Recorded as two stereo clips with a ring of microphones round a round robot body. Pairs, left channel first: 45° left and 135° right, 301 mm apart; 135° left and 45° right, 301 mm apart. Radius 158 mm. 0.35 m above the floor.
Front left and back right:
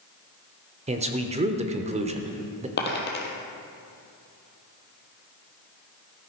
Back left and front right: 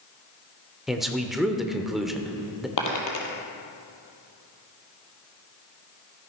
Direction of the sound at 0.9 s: 135° right.